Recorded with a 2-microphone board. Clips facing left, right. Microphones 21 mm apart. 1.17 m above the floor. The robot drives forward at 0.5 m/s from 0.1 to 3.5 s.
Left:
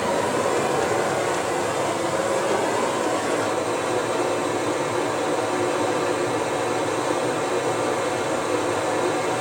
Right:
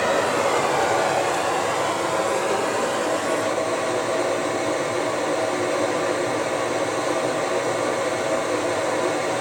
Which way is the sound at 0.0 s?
40° right (ahead or behind).